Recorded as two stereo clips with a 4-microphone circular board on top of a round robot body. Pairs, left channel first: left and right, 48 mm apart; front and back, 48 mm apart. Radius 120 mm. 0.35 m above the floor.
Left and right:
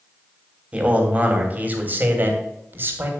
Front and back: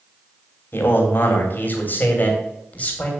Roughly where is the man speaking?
Ahead right.